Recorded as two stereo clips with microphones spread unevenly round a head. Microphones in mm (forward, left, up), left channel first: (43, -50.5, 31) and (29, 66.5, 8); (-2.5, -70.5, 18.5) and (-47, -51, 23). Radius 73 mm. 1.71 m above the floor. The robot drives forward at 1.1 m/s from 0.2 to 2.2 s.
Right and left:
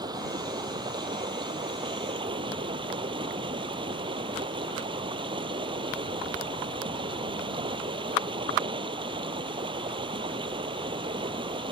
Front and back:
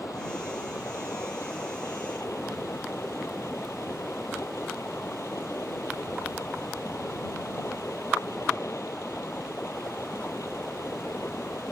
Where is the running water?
40° left; by 11.7 s 50° left.